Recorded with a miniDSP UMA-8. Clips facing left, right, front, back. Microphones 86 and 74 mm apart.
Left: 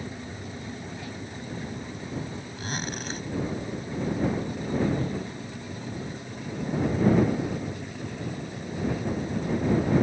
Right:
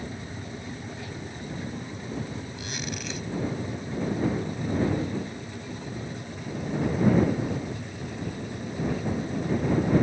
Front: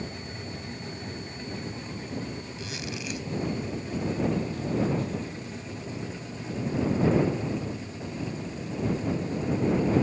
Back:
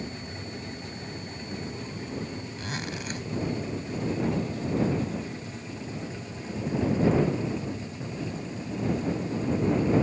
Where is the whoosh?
45° left.